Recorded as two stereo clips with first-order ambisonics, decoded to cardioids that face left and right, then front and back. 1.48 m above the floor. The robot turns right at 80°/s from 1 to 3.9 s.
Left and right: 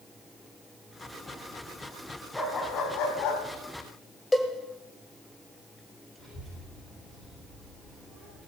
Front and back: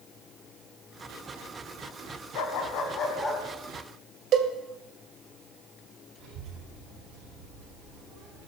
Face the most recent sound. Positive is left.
turn(degrees=150)